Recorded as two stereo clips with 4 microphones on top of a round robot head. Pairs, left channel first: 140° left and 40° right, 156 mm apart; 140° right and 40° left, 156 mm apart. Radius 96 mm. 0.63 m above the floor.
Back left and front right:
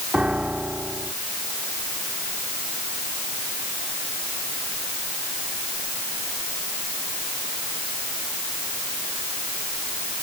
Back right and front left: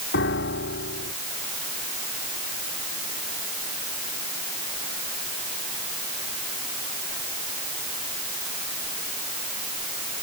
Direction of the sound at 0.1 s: 125° right.